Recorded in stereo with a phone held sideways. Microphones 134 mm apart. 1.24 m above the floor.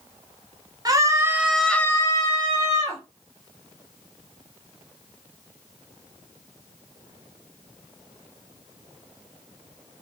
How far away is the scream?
About 0.7 m.